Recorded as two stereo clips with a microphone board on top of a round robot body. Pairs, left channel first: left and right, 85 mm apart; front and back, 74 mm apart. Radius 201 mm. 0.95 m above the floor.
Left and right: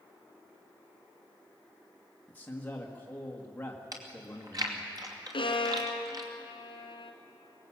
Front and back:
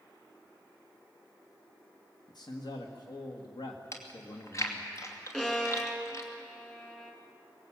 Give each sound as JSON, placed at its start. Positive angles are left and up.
{"t": 2.3, "sound": "a man speaking", "azimuth_deg": 20, "distance_m": 1.7}
{"t": 3.9, "sound": "chewing", "azimuth_deg": -45, "distance_m": 2.5}
{"t": 5.3, "sound": "a violin", "azimuth_deg": 80, "distance_m": 2.5}